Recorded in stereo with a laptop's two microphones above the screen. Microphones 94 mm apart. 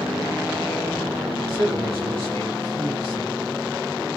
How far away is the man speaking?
About 2.0 m.